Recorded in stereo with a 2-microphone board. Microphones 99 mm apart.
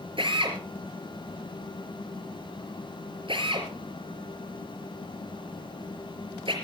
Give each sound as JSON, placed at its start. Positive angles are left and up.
{"t": 0.2, "sound": "a drill", "side_deg": -60, "distance_m": 4.5}